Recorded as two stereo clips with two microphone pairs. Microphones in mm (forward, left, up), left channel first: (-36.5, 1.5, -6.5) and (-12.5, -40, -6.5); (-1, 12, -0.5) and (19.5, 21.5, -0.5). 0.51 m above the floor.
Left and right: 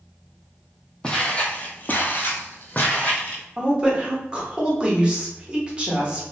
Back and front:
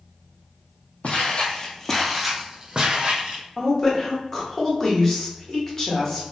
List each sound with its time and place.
1.0 s footsteps: 170° right, 0.9 m; by 3.4 s 65° left, 1.2 m
3.6 s a woman speaking: 100° right, 1.0 m